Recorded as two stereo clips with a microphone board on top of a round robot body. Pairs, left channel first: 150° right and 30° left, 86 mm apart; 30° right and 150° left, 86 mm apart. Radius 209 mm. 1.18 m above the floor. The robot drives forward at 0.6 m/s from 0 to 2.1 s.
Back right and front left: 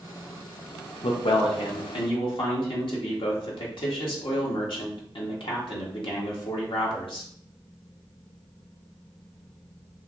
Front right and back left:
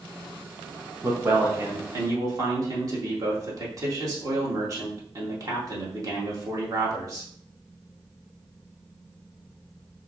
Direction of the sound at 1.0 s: 150° right.